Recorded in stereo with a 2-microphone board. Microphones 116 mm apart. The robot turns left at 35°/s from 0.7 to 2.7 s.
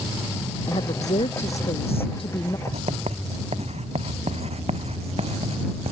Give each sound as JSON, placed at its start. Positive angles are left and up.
{"t": 0.7, "sound": "a woman speaking", "azimuth_deg": 105}
{"t": 2.7, "sound": "writing", "side_deg": -70}